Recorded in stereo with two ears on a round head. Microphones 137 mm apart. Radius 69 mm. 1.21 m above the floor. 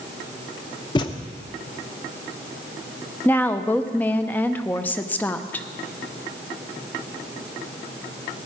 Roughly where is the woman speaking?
Centre.